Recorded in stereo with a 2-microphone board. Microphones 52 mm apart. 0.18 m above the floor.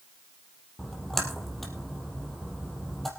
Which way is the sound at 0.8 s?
5° left (ahead or behind).